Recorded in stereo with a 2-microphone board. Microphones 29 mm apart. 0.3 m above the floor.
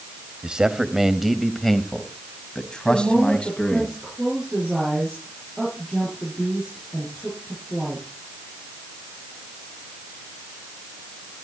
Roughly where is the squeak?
I don't hear a squeak.